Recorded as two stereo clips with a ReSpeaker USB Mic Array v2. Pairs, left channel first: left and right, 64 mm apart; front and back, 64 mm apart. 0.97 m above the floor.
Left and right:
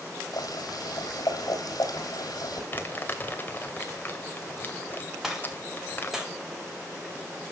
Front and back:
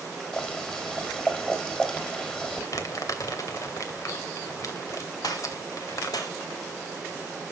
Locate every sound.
0.3 s boiling: 75° left, 3.5 m
2.7 s crumpling: 30° left, 2.5 m
5.2 s a gunshot: 5° right, 3.5 m